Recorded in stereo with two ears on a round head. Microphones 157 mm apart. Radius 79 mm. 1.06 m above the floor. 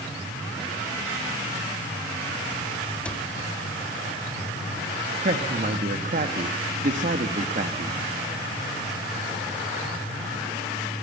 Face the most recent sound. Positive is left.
turn(degrees=-45)  # may be behind; listen again after turning